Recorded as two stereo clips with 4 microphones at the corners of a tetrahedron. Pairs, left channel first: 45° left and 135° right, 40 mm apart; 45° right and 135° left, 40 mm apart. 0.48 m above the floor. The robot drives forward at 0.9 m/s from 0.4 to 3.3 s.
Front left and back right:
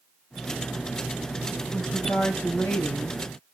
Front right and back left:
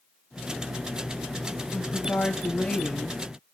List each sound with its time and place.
1.7 s a woman speaking: 25° left, 3.5 m; by 3.2 s 40° left, 2.5 m